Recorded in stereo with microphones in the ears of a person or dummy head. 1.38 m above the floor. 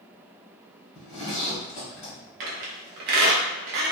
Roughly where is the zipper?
Left.